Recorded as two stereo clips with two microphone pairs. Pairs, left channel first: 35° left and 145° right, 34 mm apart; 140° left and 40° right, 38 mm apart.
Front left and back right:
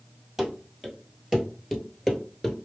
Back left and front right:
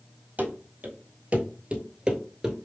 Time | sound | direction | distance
0.4 | running footsteps | 70° right | 1.7 m